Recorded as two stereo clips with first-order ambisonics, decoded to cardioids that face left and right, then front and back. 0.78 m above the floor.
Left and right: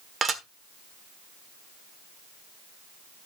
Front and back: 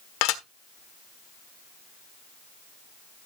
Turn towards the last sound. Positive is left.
turn(degrees=-20)